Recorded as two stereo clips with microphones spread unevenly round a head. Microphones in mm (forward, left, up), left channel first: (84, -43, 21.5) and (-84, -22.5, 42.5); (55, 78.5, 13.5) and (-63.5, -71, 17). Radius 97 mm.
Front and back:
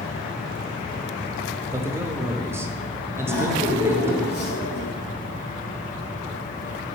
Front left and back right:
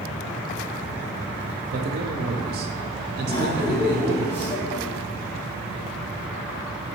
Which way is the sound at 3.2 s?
25° right.